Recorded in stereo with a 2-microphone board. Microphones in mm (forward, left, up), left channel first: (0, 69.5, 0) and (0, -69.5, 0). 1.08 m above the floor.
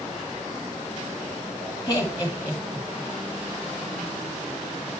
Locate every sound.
1.9 s laughter: 30° left (ahead or behind), 2 m